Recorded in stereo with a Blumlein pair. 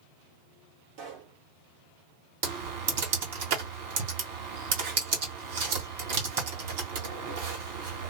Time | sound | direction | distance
1.0 | a pop | 45° right | 1.3 m
2.4 | typing on a keyboard | 50° right | 1.4 m